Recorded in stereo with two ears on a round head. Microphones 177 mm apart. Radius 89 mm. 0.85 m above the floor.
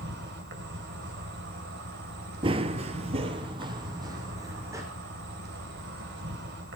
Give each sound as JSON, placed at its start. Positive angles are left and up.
{"t": 0.0, "sound": "an insect", "side_deg": -60, "distance_m": 3.0}
{"t": 2.4, "sound": "running footsteps", "side_deg": -25, "distance_m": 1.0}